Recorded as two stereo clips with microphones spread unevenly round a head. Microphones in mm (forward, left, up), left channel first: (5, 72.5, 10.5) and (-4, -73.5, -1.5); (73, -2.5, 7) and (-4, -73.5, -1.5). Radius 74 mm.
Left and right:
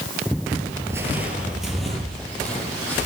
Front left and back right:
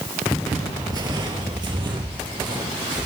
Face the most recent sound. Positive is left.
turn(degrees=165)